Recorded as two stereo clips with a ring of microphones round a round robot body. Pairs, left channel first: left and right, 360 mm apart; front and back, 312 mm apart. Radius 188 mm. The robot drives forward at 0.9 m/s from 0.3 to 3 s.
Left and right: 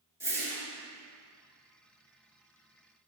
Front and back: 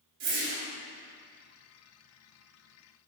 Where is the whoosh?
170° right, 2 m.